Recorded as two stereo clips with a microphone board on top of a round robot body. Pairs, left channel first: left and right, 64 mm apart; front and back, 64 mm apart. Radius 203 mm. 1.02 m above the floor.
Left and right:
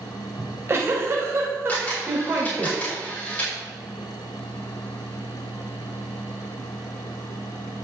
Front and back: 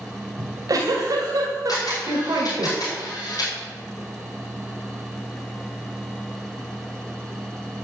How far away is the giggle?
About 2.5 m.